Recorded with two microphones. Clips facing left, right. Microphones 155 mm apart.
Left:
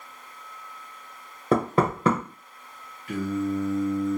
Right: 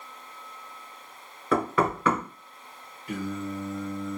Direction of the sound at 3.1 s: 25° right (ahead or behind).